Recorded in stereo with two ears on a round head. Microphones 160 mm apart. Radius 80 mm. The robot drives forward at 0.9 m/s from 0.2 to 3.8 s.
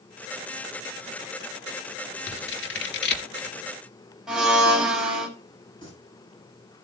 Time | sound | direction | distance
2.3 | scissors | 70° left (ahead or behind) | 1.9 m
4.3 | a blender | 5° right (ahead or behind) | 4.5 m
5.8 | singing | 30° left (ahead or behind) | 9 m